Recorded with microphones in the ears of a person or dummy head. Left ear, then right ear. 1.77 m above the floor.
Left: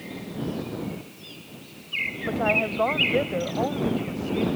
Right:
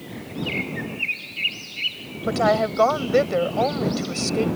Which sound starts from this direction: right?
A woman speaking, at 2.3 s.